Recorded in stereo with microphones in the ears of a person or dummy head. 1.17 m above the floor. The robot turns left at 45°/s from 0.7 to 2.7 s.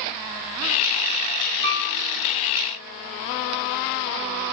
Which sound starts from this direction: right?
A piano, at 1.6 s.